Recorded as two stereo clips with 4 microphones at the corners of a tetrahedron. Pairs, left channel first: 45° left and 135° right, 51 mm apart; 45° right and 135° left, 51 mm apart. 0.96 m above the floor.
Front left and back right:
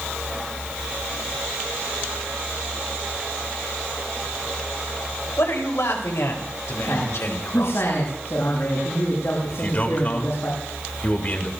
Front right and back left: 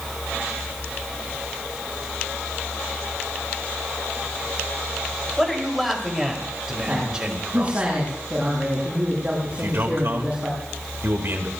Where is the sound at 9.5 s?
100° left, 3 m.